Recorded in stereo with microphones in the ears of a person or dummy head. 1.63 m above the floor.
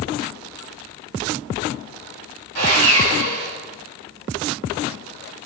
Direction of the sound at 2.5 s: 65° right (ahead or behind).